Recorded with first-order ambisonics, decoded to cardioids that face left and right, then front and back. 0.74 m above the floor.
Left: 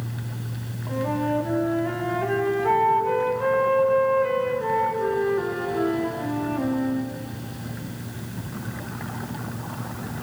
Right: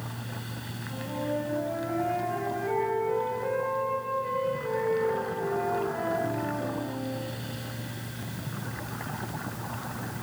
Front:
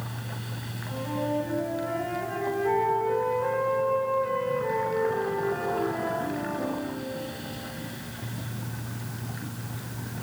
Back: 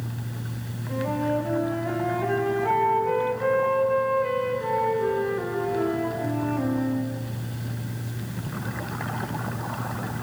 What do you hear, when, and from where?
0.9 s a flute: 115° left, 5.5 m